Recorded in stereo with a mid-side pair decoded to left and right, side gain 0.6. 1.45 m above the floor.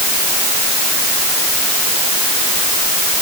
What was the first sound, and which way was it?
Only background noise.